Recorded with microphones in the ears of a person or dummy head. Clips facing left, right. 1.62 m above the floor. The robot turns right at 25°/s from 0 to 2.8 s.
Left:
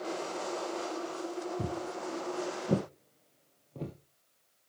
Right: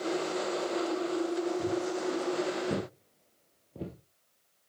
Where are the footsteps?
40° left (ahead or behind), 2 m; by 3.9 s 5° right (ahead or behind), 2.5 m.